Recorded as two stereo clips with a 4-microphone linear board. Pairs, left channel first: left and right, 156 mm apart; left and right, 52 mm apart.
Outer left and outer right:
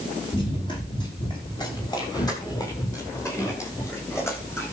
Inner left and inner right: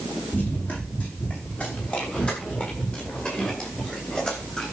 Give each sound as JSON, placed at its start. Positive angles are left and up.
{"t": 0.3, "sound": "running footsteps", "side_deg": 30, "distance_m": 7.0}